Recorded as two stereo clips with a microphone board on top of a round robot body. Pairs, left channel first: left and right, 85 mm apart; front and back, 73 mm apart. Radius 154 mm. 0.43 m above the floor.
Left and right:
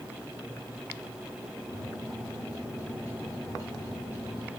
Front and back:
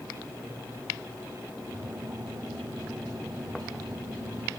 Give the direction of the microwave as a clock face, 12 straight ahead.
7 o'clock.